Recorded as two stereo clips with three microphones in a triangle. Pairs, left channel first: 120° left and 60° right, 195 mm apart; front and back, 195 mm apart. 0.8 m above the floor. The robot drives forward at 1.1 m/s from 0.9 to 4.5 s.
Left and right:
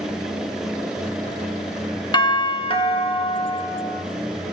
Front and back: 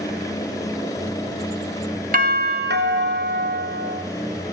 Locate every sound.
2.1 s a doorbell: 175° left, 1.4 m; by 4.0 s straight behind, 3 m